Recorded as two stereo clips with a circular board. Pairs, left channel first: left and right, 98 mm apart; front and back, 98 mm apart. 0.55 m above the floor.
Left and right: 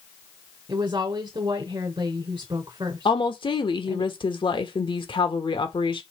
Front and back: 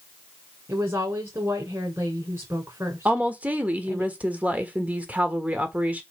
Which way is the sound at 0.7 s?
120° right.